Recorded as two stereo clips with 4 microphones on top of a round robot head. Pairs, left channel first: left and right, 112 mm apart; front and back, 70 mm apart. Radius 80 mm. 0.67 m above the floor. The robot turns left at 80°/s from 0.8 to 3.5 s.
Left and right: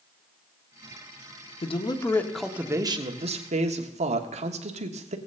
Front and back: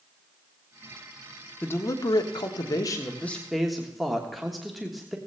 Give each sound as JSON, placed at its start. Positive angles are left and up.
{"t": 1.6, "sound": "a man speaking", "azimuth_deg": 65, "distance_m": 1.2}